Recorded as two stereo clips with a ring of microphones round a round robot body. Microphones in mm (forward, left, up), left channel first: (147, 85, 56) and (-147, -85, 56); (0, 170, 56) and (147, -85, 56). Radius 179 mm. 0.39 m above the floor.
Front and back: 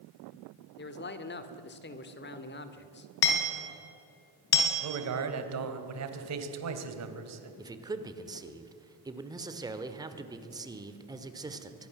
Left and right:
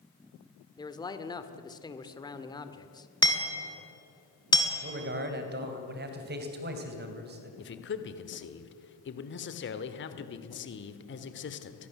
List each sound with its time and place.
0.8 s a man speaking: 55° left, 1.6 m
3.2 s hammering: 45° left, 4 m
4.8 s a man speaking: 115° right, 2.5 m
7.6 s a man speaking: 135° left, 1.5 m